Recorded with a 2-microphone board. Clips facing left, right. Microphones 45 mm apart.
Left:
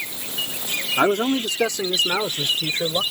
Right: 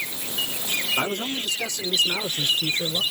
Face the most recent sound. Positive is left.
turn(degrees=50)  # may be behind; listen again after turning